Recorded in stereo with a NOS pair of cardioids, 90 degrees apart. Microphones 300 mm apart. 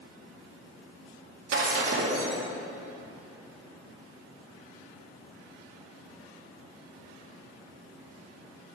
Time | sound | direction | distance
1.5 | breaking glass | 50° right | 2 m